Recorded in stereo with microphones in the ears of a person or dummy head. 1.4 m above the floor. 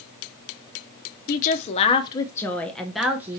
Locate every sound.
1.3 s a woman speaking: 50° left (ahead or behind), 0.9 m; by 3.4 s 10° right (ahead or behind), 1.3 m